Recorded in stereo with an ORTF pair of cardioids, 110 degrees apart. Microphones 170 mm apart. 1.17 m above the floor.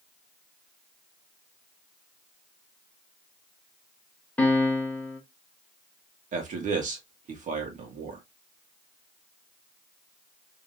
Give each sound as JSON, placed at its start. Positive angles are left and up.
{"t": 4.4, "sound": "a piano", "azimuth_deg": 10, "distance_m": 1.5}
{"t": 6.3, "sound": "a man speaking", "azimuth_deg": -50, "distance_m": 1.9}